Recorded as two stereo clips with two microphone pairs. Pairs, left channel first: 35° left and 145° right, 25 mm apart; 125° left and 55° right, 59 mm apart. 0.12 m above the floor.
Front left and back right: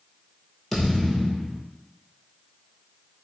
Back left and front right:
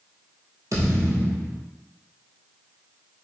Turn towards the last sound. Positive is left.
turn(degrees=-45)